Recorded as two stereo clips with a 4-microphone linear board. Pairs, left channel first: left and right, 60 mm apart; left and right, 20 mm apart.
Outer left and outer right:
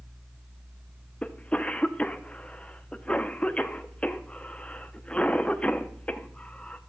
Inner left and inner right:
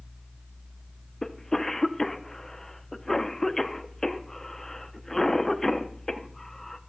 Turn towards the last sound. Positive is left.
turn(degrees=20)  # may be behind; listen again after turning